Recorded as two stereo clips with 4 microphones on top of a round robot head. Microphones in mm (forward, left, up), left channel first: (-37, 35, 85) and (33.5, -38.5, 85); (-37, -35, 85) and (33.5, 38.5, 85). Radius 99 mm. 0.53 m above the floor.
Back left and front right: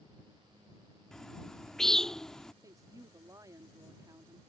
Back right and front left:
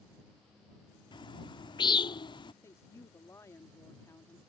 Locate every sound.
1.1 s a bird: 145° right
2.6 s a woman speaking: 85° right